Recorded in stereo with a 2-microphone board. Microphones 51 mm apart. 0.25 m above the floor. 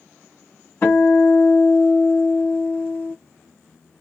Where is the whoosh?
No whoosh in this recording.